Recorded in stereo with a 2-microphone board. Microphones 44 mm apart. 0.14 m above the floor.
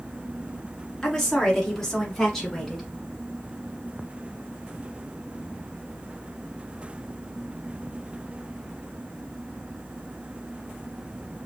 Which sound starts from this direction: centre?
A woman speaking, at 1.0 s.